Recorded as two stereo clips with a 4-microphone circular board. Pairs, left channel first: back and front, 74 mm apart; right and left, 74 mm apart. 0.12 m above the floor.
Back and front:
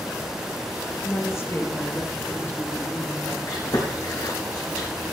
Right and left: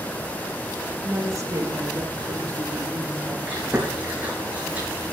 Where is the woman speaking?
135° left, 3 m; by 3.4 s 120° left, 5 m.